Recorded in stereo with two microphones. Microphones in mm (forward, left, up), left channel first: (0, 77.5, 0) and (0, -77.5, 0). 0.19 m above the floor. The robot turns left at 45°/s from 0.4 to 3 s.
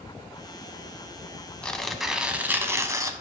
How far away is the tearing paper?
About 0.6 m.